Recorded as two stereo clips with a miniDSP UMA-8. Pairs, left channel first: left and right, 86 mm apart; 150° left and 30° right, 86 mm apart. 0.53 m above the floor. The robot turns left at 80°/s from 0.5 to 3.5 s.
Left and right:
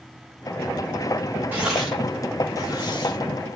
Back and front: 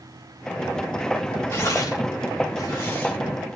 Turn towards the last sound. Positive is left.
turn(degrees=45)